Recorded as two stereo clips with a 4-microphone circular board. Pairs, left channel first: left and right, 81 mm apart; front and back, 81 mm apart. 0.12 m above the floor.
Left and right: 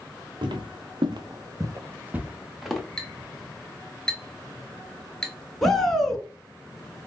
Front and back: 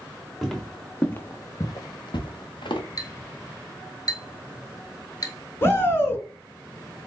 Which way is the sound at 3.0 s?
10° left.